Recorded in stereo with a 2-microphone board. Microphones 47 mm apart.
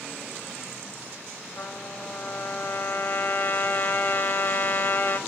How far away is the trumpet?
About 2.0 m.